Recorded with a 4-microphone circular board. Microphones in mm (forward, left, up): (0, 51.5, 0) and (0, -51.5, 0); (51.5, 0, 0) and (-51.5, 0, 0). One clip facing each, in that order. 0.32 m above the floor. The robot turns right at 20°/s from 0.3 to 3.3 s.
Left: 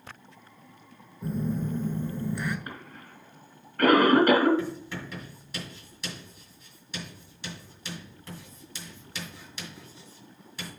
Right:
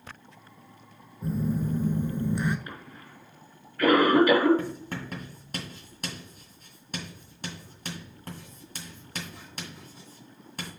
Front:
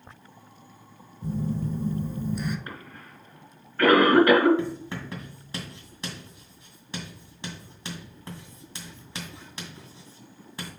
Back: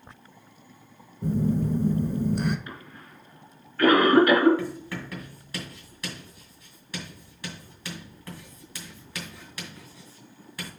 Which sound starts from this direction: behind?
A phone buzzing, at 1.2 s.